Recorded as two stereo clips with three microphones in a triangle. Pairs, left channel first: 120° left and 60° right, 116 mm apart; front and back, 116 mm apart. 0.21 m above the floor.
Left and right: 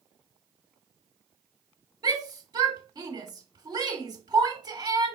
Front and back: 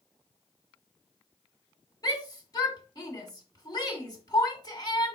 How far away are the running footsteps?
I don't hear running footsteps.